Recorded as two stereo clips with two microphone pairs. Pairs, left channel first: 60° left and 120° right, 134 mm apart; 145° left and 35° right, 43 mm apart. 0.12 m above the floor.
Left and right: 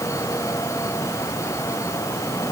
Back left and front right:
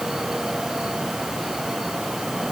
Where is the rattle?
No rattle in this recording.